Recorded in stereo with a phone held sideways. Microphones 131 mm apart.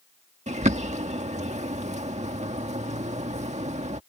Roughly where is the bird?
Right.